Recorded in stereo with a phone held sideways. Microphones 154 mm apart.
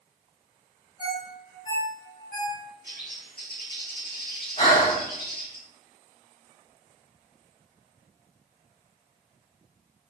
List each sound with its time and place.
1.0 s a ringtone: 50° left (ahead or behind), 3.5 m
2.8 s a bird: 85° left, 3 m
4.6 s breathing: 60° left (ahead or behind), 4 m